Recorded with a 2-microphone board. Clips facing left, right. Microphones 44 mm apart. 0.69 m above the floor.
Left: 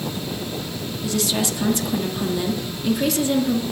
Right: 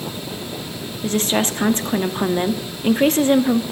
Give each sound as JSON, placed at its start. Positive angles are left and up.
{"t": 1.0, "sound": "a woman speaking", "side_deg": -40, "distance_m": 1.0}